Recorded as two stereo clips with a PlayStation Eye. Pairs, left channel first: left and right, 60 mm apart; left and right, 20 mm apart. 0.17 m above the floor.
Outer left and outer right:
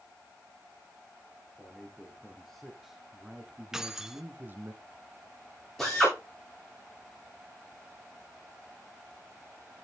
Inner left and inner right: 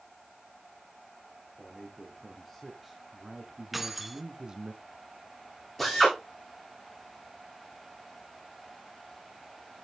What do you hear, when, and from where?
1.6 s a man speaking: 10° left (ahead or behind), 3 m; by 4.7 s 35° right (ahead or behind), 1.8 m
3.7 s keys jangling: 10° right (ahead or behind), 1.0 m
5.8 s a drill: 5° left (ahead or behind), 10 m